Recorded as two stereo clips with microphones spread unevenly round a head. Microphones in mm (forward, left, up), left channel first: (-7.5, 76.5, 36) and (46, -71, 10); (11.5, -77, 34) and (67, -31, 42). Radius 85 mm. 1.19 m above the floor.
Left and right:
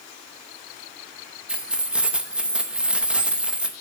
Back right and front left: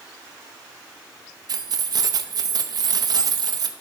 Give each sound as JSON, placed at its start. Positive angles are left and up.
{"t": 1.5, "sound": "keys jangling", "azimuth_deg": 15, "distance_m": 0.8}